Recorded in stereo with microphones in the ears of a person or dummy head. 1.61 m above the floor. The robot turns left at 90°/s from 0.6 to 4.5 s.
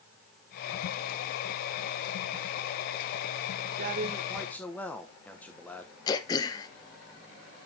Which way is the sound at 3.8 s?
125° right.